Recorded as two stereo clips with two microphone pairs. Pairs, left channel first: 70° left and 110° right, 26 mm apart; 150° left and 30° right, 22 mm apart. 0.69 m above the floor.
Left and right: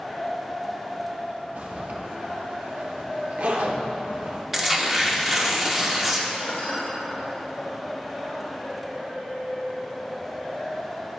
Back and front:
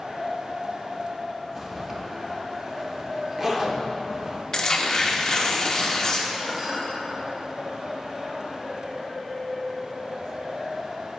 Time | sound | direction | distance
1.6 | a zipper | 95° right | 0.8 m
4.5 | tearing paper | 175° right | 0.8 m
6.4 | dishes clattering | 40° left | 1.8 m